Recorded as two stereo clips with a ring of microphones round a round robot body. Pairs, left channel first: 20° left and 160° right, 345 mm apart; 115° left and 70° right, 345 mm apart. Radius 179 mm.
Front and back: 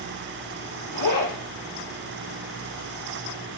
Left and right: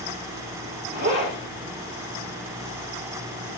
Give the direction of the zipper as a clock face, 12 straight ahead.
12 o'clock.